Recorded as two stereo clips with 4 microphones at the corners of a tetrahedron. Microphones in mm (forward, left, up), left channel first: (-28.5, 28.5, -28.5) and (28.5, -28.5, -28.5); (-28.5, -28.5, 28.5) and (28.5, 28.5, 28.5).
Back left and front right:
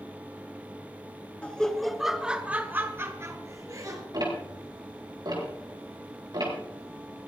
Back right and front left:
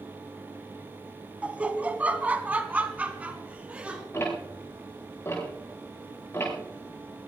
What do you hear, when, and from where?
1.4 s laughter: 90° left, 1.1 m; by 4.0 s 25° right, 1.6 m
4.1 s ticking: 80° right, 5 m